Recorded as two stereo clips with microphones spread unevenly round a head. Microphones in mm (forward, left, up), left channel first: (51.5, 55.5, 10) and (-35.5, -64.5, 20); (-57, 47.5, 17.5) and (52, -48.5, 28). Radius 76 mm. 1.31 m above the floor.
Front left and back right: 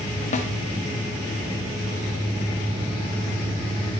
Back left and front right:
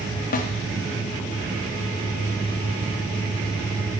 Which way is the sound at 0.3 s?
100° left.